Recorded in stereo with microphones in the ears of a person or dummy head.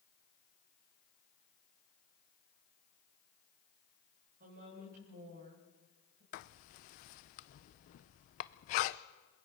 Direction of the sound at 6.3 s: 40° left (ahead or behind).